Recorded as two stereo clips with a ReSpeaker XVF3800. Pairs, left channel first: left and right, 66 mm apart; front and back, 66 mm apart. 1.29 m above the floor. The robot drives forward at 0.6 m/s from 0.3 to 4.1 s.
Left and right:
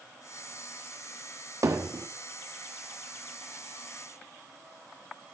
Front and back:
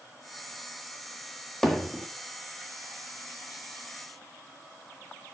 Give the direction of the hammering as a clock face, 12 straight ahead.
3 o'clock.